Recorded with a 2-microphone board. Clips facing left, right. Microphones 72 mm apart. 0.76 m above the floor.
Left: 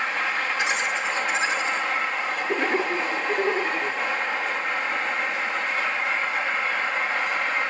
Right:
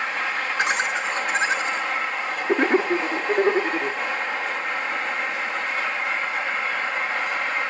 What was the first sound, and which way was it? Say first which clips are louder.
Laughter: right 2 dB; 45° right (ahead or behind).